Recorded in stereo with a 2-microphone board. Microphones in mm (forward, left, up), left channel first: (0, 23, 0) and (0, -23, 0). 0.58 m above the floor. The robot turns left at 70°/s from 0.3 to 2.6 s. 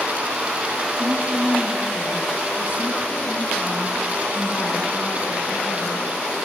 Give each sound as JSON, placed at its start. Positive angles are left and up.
{"t": 1.0, "sound": "a woman speaking", "azimuth_deg": -115, "distance_m": 5.5}